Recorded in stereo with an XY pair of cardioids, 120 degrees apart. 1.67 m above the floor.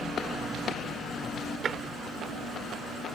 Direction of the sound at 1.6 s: 45° right.